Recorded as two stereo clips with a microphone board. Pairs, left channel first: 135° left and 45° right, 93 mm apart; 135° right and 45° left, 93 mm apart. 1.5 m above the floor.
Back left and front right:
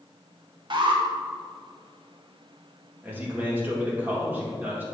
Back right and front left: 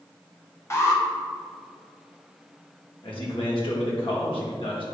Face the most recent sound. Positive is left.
turn(degrees=-115)